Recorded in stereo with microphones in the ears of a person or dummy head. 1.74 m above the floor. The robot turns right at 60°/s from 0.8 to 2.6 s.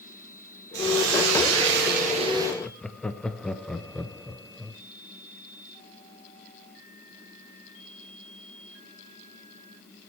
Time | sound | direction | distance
0.7 | a hiss | 120° right | 2 m
2.6 | laughter | centre (ahead or behind) | 0.6 m